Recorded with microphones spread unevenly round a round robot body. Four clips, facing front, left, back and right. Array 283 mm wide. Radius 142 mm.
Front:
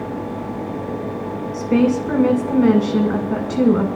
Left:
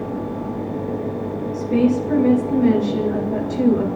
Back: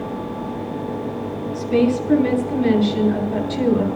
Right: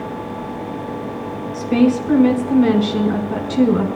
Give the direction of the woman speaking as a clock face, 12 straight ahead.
1 o'clock.